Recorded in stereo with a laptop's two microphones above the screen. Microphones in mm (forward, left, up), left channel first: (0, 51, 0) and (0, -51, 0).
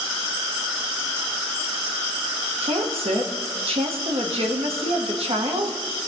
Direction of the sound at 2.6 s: 65° right (ahead or behind).